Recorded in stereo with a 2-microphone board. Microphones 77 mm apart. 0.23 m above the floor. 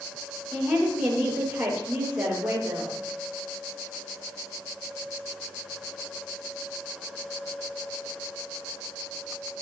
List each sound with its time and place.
0.5 s a woman speaking: 15° right (ahead or behind), 5 m